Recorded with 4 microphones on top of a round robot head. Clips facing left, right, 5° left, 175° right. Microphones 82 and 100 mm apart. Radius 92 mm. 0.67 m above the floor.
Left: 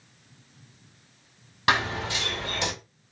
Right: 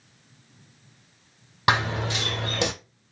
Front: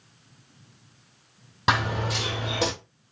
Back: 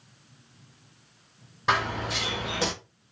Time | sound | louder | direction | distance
1.7 | running footsteps | right 2 dB, front 2 dB | 30° right | 1.3 m